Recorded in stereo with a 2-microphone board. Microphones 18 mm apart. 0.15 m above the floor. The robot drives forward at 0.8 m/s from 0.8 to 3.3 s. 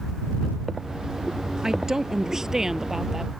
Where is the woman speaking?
30° right (ahead or behind); by 3.3 s 25° right (ahead or behind).